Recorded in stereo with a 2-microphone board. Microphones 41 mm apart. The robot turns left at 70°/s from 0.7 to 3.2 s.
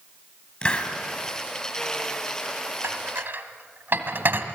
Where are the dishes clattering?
75° right (ahead or behind), 2.0 m; by 4.5 s 60° right (ahead or behind), 2.0 m.